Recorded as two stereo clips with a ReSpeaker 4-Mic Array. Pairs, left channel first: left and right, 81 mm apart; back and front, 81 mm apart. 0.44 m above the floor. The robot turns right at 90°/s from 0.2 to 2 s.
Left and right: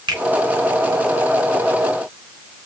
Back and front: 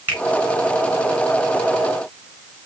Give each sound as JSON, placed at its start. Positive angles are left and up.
{"t": 0.1, "sound": "a finger snap", "azimuth_deg": -65, "distance_m": 3.5}